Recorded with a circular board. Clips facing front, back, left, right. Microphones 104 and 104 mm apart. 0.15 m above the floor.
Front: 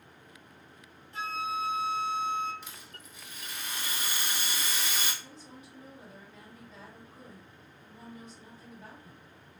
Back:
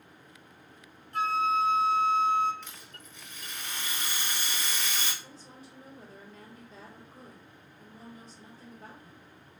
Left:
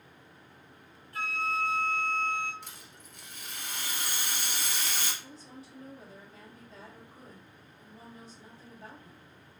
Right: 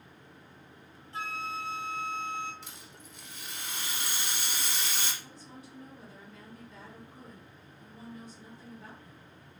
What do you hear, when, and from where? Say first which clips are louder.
1.1 s a flute: back 7 dB, left 4 dB; 155° right, 0.9 m
2.6 s a rattle: even, right 1 dB; 80° left, 1.1 m
5.2 s a woman speaking: even, left 1 dB; 140° left, 1.8 m